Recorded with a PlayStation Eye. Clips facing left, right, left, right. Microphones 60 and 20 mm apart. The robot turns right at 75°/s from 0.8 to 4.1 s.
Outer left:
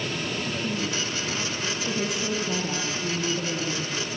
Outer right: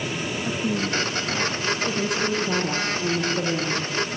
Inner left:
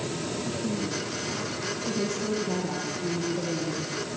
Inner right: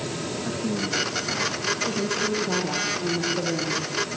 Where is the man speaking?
125° right, 6 m; by 1.7 s 55° right, 6 m.